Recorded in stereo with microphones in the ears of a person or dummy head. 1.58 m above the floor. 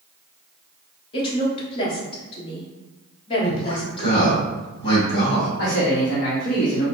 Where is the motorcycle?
I don't hear a motorcycle.